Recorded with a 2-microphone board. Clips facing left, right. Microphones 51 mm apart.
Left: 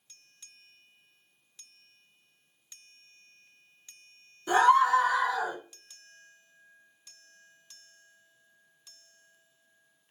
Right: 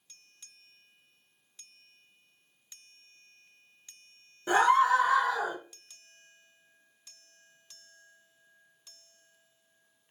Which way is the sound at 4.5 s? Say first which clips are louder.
Left 2 dB; 35° right (ahead or behind).